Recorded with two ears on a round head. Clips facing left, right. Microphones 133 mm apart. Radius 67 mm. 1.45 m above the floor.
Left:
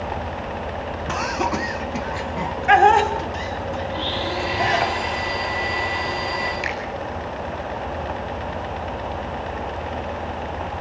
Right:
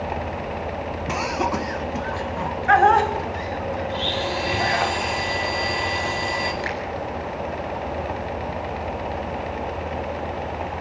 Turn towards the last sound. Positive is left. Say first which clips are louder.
# even
turn(degrees=20)  # may be behind; listen again after turning